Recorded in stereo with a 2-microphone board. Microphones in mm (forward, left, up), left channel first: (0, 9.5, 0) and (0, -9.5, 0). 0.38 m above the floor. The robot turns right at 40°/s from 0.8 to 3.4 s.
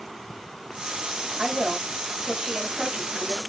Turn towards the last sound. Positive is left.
turn(degrees=-40)